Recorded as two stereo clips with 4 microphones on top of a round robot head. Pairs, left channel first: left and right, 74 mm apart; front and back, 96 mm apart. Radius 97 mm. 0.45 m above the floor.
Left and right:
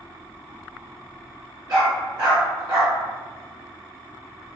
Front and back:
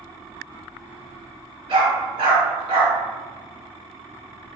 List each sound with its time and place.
1.7 s a dog barking: 145° right, 1.9 m